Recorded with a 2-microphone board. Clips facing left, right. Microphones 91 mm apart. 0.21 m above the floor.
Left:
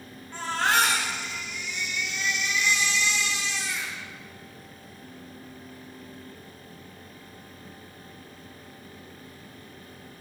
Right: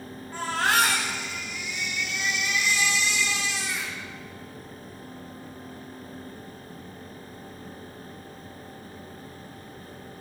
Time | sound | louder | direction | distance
0.3 | a baby crying | even | centre (ahead or behind) | 6 m